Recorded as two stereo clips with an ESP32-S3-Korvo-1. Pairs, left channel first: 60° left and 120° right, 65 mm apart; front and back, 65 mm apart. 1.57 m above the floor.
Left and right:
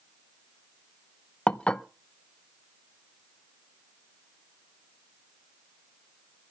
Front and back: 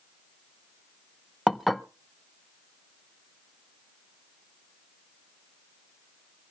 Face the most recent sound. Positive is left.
turn(degrees=90)